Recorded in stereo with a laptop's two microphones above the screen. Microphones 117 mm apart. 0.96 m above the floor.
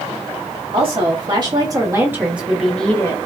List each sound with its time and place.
0.7 s a woman speaking: 45° right (ahead or behind), 1.9 m; by 3.2 s 25° left (ahead or behind), 1.0 m